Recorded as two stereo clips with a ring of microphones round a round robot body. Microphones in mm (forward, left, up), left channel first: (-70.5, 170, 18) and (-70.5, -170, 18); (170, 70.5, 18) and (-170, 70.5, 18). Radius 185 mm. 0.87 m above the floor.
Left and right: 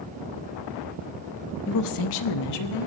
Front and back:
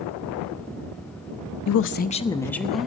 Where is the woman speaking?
35° left, 0.5 m; by 2.9 s 90° left, 1.3 m.